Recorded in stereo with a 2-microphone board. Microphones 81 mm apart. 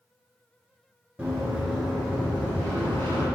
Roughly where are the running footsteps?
Centre.